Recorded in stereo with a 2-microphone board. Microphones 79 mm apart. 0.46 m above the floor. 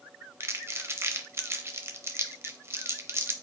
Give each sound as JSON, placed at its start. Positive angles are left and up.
{"t": 0.4, "sound": "crumpling", "side_deg": -30, "distance_m": 0.7}